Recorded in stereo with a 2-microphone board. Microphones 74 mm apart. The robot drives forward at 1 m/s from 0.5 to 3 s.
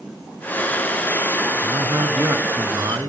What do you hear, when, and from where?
1.6 s a man speaking: 45° right (ahead or behind), 2 m